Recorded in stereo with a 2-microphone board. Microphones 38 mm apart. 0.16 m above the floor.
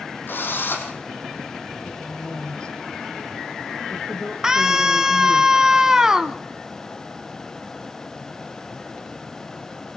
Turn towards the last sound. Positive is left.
turn(degrees=-15)  # may be behind; listen again after turning